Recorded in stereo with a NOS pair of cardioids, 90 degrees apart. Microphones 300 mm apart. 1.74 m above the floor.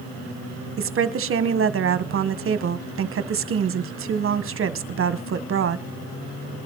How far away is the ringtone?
No ringtone in this recording.